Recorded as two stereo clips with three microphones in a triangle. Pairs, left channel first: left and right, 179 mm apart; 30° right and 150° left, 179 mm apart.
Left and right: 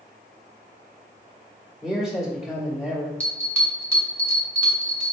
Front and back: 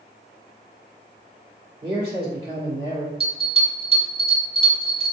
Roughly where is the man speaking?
Behind.